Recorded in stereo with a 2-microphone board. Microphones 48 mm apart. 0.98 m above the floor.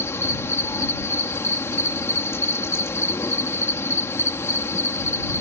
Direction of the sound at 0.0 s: 65° left (ahead or behind).